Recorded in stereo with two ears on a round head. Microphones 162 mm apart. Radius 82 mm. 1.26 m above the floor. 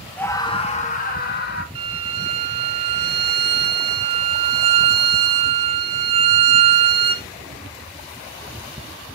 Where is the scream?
10° left (ahead or behind), 1.2 m; by 1.6 s 60° left (ahead or behind), 2.5 m.